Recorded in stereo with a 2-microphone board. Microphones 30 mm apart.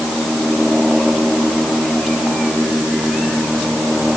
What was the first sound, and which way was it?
Only background noise.